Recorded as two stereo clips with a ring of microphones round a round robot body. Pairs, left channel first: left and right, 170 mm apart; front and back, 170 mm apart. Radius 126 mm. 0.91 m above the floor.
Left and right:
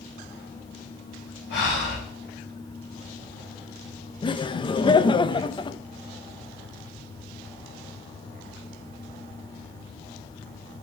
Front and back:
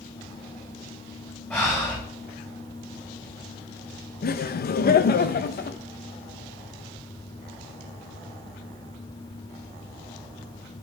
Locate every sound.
1.5 s breathing: 75° left, 4 m
4.2 s laughter: 25° left, 0.5 m